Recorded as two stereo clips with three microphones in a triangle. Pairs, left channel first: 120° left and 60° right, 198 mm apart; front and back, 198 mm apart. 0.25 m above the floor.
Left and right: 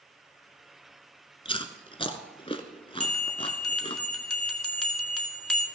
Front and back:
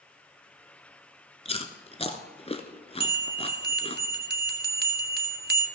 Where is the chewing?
55° left, 1.2 m.